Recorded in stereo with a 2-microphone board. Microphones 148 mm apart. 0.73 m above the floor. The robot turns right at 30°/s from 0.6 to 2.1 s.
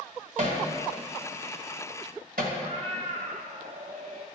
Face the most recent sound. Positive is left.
turn(degrees=-55)  # may be behind; listen again after turning